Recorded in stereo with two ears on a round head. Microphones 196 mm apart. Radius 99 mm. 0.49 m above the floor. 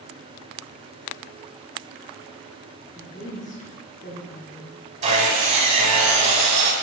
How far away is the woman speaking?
About 1.1 m.